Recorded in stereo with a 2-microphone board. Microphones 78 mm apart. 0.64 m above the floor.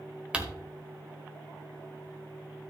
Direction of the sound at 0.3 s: 10° right (ahead or behind).